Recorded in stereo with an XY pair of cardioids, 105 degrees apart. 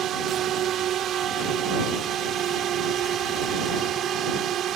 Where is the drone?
65° right.